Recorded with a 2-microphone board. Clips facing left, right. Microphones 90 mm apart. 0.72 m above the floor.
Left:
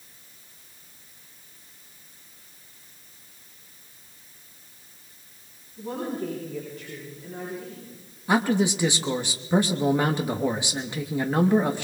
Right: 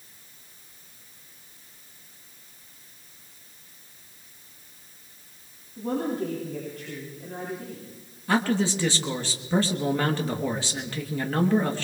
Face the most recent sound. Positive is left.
turn(degrees=15)  # may be behind; listen again after turning